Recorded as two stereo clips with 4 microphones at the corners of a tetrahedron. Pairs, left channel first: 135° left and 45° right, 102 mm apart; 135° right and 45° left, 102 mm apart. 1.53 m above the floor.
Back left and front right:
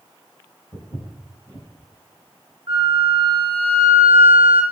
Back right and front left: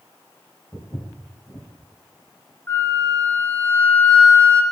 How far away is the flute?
About 0.6 m.